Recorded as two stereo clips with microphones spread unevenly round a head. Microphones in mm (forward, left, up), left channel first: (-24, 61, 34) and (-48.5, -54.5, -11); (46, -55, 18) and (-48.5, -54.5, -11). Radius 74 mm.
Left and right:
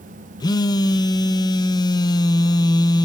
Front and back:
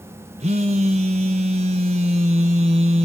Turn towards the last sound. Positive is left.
turn(degrees=125)